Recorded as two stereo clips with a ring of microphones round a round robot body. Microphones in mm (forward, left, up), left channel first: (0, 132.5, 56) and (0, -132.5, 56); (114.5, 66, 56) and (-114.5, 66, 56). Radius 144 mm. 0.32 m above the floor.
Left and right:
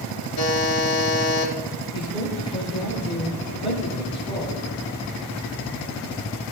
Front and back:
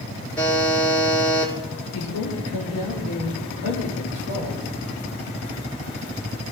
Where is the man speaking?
20° left, 6.5 m.